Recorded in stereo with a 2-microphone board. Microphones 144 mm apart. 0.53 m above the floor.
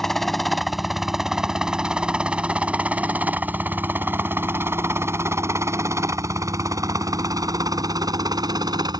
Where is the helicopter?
Centre (ahead or behind); by 9.0 s 30° right (ahead or behind).